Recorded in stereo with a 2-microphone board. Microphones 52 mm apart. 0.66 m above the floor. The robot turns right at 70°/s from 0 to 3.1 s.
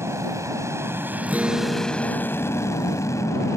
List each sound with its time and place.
0.0 s an aircraft: 120° right; by 3.6 s 100° left
1.3 s a guitar: 40° right; by 3.4 s 90° left